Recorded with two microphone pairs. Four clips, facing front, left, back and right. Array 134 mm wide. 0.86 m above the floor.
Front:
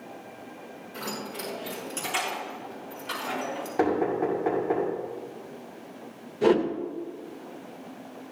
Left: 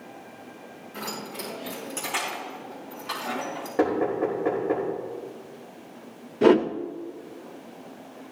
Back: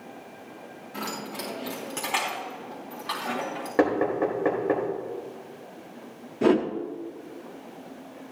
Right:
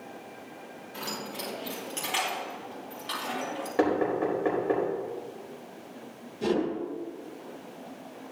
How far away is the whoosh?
About 1.1 m.